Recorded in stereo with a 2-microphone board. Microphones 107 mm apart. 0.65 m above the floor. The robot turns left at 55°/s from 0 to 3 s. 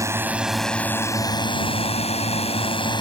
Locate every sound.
0.0 s a drone: 150° right; by 3.0 s 45° left